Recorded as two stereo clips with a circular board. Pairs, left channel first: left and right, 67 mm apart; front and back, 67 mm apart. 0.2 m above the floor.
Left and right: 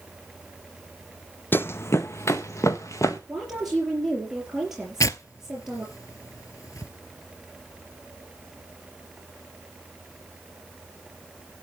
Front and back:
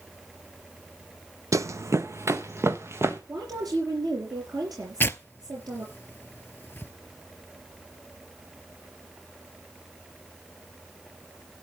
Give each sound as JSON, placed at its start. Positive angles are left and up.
{"t": 1.5, "sound": "running footsteps", "azimuth_deg": 150, "distance_m": 0.5}
{"t": 3.3, "sound": "a woman speaking", "azimuth_deg": -175, "distance_m": 5.0}
{"t": 5.0, "sound": "tearing paper", "azimuth_deg": 60, "distance_m": 0.8}